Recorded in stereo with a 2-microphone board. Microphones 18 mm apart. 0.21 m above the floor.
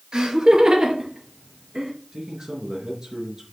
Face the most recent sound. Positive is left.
turn(degrees=-50)  # may be behind; listen again after turning